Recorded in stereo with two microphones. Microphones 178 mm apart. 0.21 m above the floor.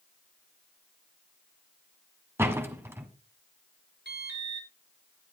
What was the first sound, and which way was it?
A door slam, 15° right (ahead or behind).